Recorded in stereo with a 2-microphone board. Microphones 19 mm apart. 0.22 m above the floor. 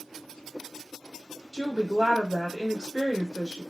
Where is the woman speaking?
25° left (ahead or behind), 1.2 m.